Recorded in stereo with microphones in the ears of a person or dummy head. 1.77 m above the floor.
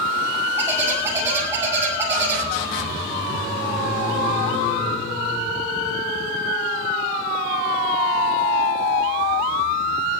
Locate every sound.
0.6 s a bird: 15° right (ahead or behind), 6 m